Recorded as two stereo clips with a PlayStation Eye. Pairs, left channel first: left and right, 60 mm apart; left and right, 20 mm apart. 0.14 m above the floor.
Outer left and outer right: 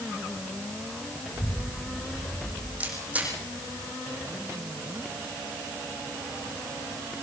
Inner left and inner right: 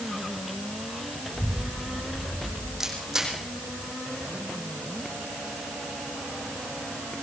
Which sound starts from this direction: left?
A child speaking, at 1.3 s.